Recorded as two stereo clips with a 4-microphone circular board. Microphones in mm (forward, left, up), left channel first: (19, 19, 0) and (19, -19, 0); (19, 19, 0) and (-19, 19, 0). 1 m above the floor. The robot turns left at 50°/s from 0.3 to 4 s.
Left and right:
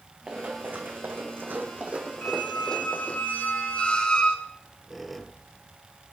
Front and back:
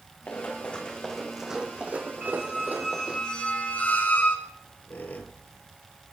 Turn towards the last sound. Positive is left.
turn(degrees=0)